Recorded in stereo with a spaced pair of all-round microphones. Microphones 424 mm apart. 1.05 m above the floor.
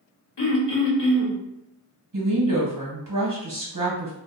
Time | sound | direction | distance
0.4 | throat clearing | 75° left (ahead or behind) | 0.7 m
2.1 | a woman speaking | 50° right (ahead or behind) | 1.1 m